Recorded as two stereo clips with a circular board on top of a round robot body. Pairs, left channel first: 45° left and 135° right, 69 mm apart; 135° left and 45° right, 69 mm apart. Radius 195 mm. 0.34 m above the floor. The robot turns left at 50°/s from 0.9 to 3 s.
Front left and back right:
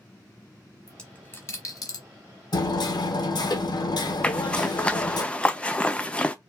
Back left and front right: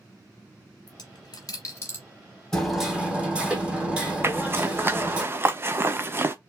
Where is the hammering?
55° left, 1.3 m; by 5.2 s 30° left, 1.3 m.